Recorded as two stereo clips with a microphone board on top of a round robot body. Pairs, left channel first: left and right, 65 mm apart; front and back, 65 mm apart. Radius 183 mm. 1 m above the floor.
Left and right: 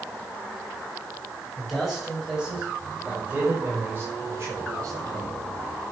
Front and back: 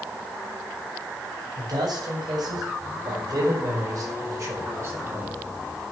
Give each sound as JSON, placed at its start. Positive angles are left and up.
{"t": 1.6, "sound": "a man speaking", "azimuth_deg": 180, "distance_m": 7.0}